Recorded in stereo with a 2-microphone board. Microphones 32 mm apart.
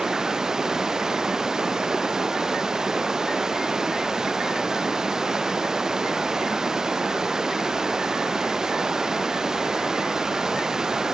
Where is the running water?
20° right (ahead or behind).